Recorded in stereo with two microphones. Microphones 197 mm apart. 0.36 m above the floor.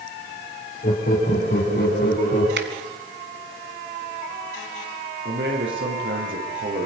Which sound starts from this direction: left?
Laughter, at 0.8 s.